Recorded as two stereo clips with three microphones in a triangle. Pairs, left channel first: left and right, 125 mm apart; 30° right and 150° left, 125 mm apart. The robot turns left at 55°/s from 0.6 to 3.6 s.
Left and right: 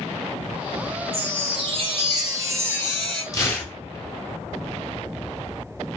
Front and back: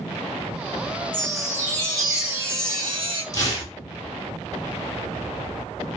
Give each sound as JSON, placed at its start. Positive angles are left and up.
{"t": 1.1, "sound": "a chime", "azimuth_deg": -70, "distance_m": 1.0}
{"t": 3.3, "sound": "tearing paper", "azimuth_deg": 30, "distance_m": 1.1}